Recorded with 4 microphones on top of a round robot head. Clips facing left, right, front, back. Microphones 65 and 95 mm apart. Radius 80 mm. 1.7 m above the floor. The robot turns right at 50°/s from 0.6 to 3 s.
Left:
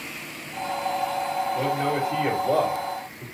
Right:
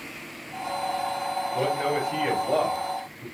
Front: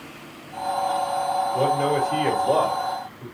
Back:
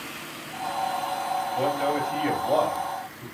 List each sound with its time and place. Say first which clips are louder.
1.5 s a man speaking: right 1 dB, front 3 dB; 15° right, 3 m; by 3.2 s 55° left, 3 m